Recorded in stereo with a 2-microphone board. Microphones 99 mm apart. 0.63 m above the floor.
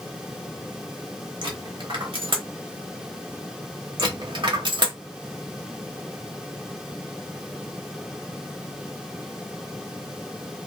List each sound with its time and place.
1.4 s a dropped coin: 60° right (ahead or behind), 0.8 m
4.0 s a dropped coin: 55° right (ahead or behind), 1.0 m